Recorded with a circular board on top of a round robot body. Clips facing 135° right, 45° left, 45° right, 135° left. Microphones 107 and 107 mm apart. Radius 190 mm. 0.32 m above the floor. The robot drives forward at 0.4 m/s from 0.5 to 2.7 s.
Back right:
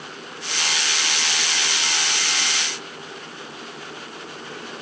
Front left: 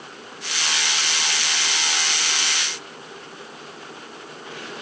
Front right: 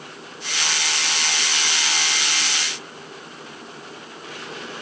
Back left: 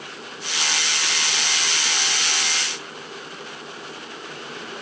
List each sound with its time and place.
Only background noise.